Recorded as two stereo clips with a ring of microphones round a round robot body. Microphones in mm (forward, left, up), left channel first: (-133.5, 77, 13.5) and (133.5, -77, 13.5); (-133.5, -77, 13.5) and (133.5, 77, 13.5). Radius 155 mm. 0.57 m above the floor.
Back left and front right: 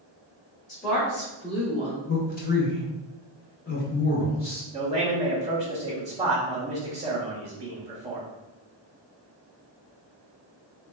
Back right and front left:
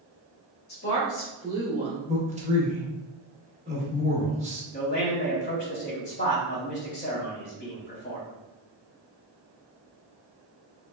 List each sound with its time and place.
0.7 s a woman speaking: 165° right, 1.2 m; by 2.0 s 80° left, 1.4 m
2.1 s a man speaking: 95° left, 1.1 m
4.7 s a man speaking: 100° right, 0.7 m